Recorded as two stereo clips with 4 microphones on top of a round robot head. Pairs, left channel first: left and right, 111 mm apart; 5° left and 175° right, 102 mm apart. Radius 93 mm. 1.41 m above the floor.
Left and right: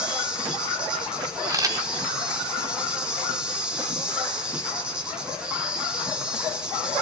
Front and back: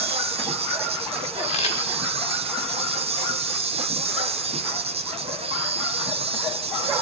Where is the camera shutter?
30° right, 5 m.